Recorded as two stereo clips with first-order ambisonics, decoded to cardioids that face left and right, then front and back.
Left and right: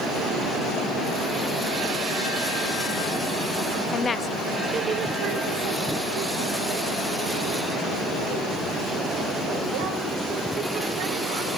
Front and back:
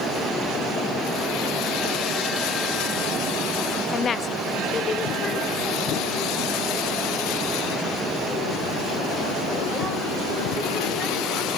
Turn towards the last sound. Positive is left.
turn(degrees=-85)